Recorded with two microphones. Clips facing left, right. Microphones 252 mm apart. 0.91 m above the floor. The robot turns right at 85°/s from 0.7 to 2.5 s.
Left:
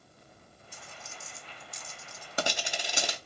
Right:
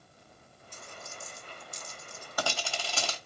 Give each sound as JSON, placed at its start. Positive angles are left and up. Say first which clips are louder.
{"t": 0.7, "sound": "a dropped coin", "louder": "right 3 dB", "side_deg": 10, "distance_m": 0.6}